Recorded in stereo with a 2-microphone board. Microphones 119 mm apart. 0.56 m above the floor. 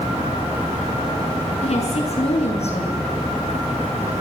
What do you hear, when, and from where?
1.6 s a woman speaking: 65° left (ahead or behind), 7 m